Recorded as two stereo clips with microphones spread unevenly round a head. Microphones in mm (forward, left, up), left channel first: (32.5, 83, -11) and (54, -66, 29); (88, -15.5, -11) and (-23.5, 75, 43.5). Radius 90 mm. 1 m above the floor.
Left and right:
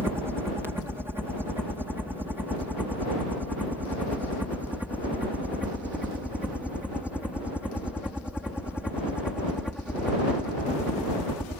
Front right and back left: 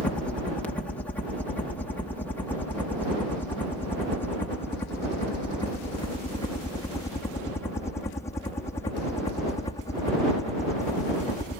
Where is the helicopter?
5° left; by 11.6 s 10° left.